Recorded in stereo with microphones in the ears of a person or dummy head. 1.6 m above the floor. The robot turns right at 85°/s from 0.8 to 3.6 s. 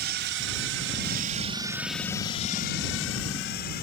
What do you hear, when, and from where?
0.0 s a drone: 55° right (ahead or behind); by 3.8 s 50° left (ahead or behind)